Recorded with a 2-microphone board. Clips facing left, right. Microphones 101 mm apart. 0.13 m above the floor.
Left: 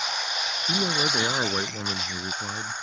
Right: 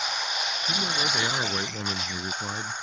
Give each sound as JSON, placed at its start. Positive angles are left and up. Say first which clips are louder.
{"t": 0.7, "sound": "a man speaking", "louder": "left 4 dB", "side_deg": 40}